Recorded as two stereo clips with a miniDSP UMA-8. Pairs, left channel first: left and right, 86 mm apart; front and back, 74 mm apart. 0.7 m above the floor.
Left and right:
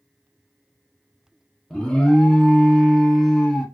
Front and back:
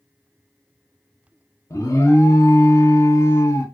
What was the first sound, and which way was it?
An alarm, 15° left.